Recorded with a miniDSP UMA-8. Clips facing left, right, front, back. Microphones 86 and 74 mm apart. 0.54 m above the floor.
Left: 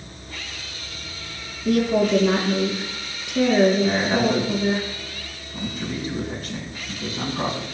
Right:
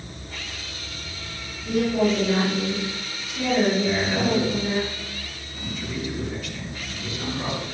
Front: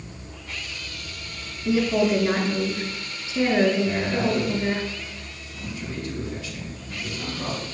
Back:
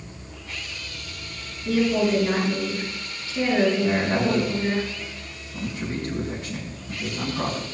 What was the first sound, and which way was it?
A woman speaking, 70° left.